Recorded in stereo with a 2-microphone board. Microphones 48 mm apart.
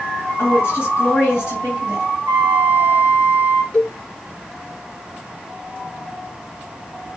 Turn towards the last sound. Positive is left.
turn(degrees=15)  # may be behind; listen again after turning